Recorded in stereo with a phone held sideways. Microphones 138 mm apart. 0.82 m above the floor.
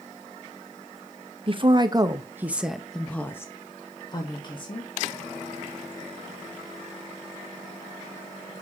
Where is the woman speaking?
40° right (ahead or behind), 1.0 m; by 4.9 s 35° left (ahead or behind), 1.6 m.